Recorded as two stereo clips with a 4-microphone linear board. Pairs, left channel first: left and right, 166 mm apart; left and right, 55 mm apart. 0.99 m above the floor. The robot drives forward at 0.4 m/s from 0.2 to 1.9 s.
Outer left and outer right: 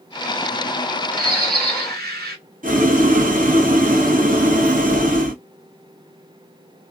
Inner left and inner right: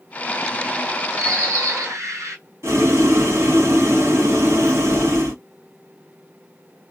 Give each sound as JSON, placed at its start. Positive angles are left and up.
{"t": 1.2, "sound": "a bird", "side_deg": -65, "distance_m": 1.8}
{"t": 2.6, "sound": "boiling", "side_deg": -55, "distance_m": 1.2}